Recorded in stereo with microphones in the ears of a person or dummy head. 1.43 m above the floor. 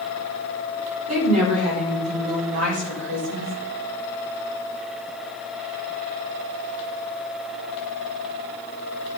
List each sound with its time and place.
1.1 s a woman speaking: 40° right (ahead or behind), 6.5 m; by 3.5 s 50° right (ahead or behind), 6.5 m